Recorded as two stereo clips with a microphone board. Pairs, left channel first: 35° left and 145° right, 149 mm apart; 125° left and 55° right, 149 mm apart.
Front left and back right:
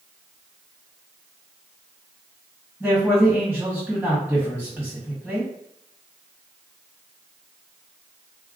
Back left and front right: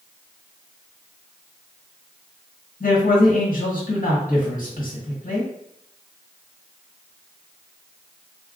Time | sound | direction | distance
2.8 | a man speaking | 130° left | 1.8 m